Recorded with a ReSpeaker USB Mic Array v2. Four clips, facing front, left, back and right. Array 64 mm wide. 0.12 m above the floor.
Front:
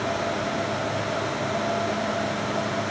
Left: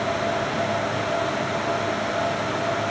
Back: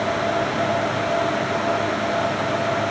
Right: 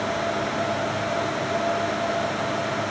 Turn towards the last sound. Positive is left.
No sound to turn to.